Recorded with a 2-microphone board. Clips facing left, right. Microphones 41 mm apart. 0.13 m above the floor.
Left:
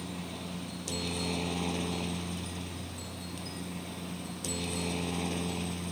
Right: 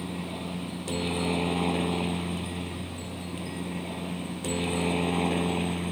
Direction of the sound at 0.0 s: 20° right (ahead or behind).